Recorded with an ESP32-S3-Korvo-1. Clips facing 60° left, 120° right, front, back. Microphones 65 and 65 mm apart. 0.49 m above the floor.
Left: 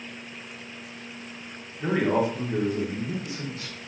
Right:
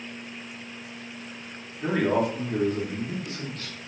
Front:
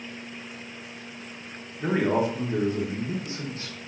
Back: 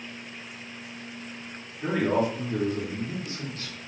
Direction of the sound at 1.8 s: 5° right.